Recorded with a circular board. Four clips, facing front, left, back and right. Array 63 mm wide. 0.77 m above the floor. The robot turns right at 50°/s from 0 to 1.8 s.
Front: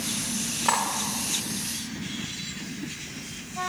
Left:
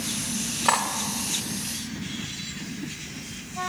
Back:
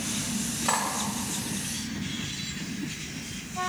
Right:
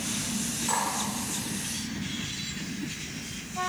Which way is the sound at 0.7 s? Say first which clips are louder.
Left 7 dB, front 3 dB; 70° left.